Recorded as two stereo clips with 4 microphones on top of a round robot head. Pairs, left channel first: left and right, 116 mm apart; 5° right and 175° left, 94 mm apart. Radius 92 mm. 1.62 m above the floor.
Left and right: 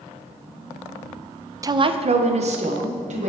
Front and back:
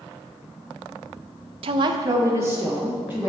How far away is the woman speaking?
About 0.5 m.